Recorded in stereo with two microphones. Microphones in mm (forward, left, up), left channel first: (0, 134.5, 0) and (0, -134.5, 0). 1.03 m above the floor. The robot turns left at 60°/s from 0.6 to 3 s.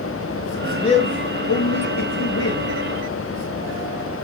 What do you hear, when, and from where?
0.6 s a man speaking: 175° left, 0.7 m; by 2.7 s 50° left, 0.7 m